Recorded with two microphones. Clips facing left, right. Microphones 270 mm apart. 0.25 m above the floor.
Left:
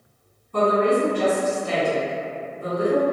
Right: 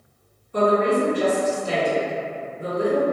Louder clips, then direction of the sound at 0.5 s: Even; 60° left (ahead or behind).